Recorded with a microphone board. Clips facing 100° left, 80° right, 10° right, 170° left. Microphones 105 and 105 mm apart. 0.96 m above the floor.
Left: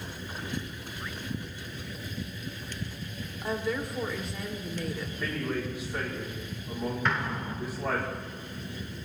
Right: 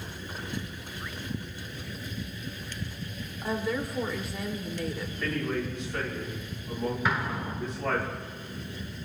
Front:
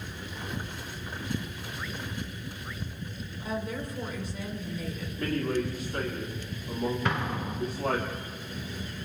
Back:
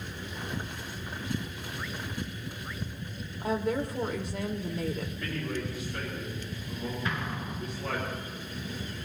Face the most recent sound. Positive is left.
turn(degrees=5)